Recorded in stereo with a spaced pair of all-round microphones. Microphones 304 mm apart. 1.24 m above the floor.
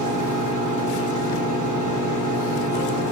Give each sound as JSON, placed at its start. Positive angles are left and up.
{"t": 0.0, "sound": "a fan", "side_deg": 80, "distance_m": 1.0}